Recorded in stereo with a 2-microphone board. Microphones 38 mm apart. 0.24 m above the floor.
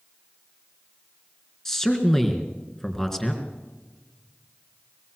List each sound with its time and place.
1.6 s a man speaking: 10° left (ahead or behind), 3.5 m